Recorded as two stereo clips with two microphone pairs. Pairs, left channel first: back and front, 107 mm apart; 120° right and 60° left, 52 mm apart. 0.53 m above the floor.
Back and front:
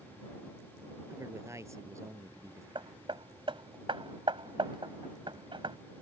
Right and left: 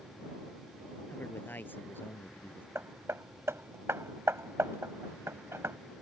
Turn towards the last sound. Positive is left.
turn(degrees=35)